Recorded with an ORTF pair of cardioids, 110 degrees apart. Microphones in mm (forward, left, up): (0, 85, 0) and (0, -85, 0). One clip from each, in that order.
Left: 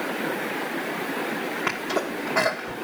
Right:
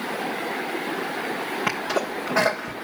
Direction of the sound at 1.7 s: 20° right.